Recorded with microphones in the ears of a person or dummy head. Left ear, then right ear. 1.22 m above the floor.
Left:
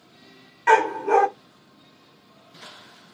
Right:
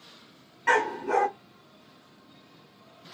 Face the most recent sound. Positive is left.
turn(degrees=25)  # may be behind; listen again after turning